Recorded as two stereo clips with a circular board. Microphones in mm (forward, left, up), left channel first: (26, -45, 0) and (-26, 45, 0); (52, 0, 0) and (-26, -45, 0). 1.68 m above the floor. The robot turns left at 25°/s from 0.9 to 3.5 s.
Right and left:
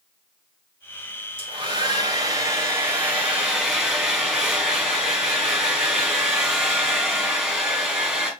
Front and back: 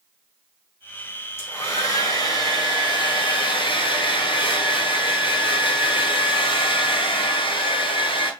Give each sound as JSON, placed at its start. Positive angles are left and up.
{"t": 1.4, "sound": "a hair dryer", "azimuth_deg": 90, "distance_m": 4.0}